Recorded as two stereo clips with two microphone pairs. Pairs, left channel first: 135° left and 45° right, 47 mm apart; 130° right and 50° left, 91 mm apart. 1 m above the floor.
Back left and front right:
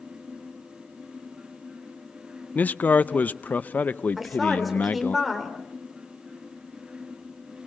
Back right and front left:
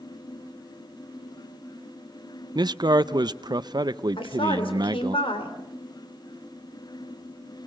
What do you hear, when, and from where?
2.5 s a man speaking: 85° left, 0.5 m
4.2 s a woman speaking: 135° right, 3.5 m